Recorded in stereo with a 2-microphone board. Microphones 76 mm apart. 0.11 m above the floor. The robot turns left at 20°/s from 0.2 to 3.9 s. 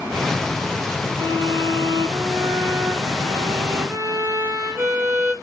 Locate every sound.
1.2 s a violin: 90° right, 6 m; by 5.3 s 145° right, 6 m